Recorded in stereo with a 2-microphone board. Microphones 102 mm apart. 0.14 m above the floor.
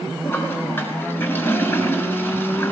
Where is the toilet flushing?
20° left (ahead or behind), 1.0 m.